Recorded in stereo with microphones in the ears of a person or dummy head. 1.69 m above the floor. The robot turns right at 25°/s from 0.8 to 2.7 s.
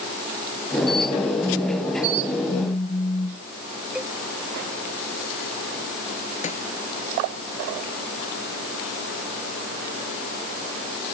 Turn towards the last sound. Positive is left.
turn(degrees=40)  # may be behind; listen again after turning